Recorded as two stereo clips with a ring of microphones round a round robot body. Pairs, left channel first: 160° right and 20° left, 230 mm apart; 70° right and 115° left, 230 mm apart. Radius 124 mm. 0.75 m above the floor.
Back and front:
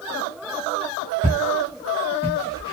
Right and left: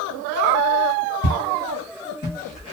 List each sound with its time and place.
1.2 s footsteps: 70° right, 1.4 m; by 2.7 s 25° right, 0.7 m